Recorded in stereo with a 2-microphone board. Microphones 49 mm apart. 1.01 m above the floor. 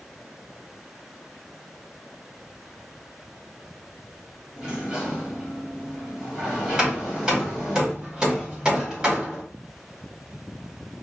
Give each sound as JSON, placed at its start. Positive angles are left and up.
{"t": 4.6, "sound": "a sliding door", "side_deg": -20, "distance_m": 1.5}
{"t": 6.8, "sound": "hammering", "side_deg": -20, "distance_m": 1.5}